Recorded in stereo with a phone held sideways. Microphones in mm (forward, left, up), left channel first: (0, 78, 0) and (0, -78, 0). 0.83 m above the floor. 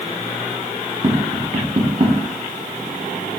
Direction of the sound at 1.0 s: 35° right (ahead or behind).